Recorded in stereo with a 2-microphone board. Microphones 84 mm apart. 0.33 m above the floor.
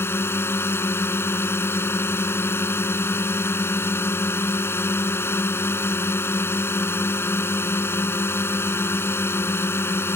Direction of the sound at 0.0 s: 30° left (ahead or behind).